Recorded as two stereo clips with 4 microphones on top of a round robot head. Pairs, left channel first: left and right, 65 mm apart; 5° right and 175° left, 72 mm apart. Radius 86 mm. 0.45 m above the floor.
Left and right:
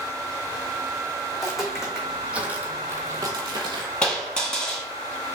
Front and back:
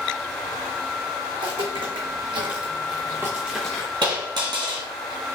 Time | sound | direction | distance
1.3 | footsteps | straight behind | 1.7 m
4.0 | a dropped coin | 165° left | 2 m